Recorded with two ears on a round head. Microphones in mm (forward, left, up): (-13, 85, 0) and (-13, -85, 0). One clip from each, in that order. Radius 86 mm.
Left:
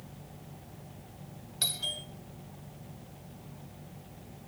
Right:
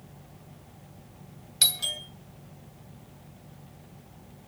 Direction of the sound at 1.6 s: 55° right (ahead or behind).